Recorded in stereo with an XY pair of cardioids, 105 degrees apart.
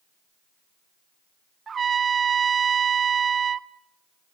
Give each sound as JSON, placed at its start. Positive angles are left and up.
{"t": 1.7, "sound": "a trumpet", "azimuth_deg": -40, "distance_m": 0.8}